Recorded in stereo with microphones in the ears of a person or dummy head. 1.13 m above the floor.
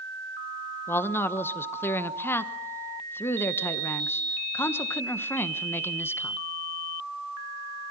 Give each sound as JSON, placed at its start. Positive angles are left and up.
{"t": 0.9, "sound": "a man speaking", "side_deg": 5, "distance_m": 1.1}